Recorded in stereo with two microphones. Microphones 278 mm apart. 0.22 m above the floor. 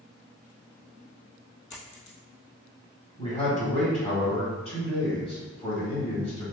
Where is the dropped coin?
85° left, 1.1 m.